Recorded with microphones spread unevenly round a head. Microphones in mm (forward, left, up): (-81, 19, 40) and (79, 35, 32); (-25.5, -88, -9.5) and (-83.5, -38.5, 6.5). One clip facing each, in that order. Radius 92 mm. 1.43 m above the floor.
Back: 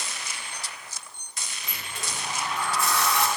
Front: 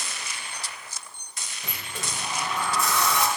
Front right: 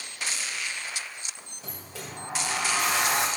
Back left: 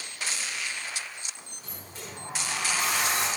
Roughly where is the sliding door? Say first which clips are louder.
Front 2 dB, front right 3 dB; ahead.